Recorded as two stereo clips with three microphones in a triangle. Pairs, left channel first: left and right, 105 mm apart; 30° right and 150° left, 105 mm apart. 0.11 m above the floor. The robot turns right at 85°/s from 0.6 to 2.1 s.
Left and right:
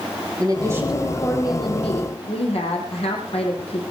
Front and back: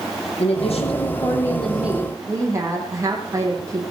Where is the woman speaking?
35° right, 5.5 m; by 3.8 s 90° left, 5.5 m.